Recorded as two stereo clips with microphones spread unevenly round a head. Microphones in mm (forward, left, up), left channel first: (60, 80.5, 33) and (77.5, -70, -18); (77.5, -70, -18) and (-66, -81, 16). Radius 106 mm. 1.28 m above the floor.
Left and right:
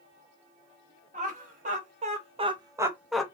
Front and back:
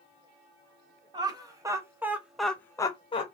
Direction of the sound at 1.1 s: 110° right.